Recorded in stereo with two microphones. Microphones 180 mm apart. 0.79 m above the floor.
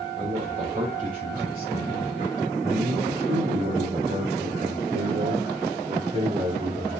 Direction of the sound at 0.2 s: 40° right (ahead or behind).